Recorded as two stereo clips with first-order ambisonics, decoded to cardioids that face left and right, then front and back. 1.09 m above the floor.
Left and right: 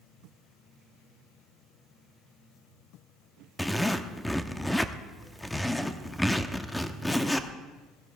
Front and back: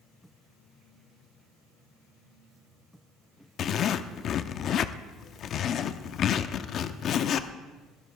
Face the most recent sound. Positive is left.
turn(degrees=10)